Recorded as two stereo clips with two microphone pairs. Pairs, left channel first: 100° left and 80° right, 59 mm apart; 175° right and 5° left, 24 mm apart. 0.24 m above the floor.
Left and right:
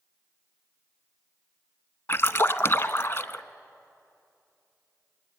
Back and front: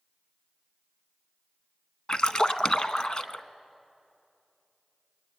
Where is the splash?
140° left, 0.7 m.